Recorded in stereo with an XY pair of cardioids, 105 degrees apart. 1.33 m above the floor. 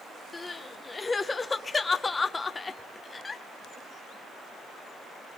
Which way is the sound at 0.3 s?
25° left.